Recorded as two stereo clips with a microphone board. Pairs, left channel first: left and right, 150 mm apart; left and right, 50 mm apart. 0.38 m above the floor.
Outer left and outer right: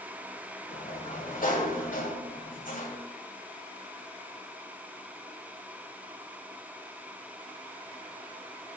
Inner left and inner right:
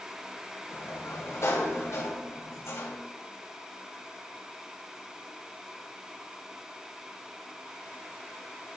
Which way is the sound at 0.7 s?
60° left (ahead or behind).